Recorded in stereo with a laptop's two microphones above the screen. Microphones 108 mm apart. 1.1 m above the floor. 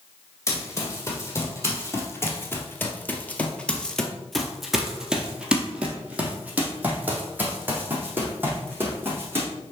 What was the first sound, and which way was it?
Running footsteps, 25° left (ahead or behind).